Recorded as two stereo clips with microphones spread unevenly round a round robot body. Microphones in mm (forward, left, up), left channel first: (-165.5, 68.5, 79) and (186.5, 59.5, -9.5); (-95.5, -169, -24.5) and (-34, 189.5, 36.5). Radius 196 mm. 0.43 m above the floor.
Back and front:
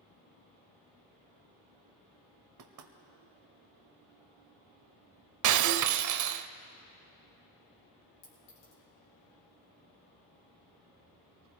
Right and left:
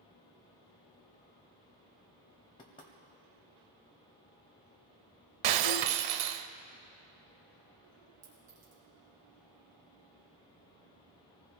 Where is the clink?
130° left, 5 m.